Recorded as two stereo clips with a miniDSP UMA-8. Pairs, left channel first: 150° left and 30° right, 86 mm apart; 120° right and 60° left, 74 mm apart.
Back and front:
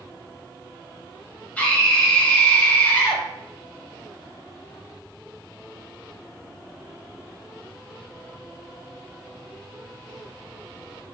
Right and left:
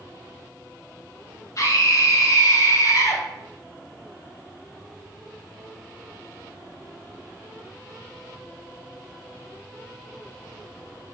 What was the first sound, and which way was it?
A scream, 140° right.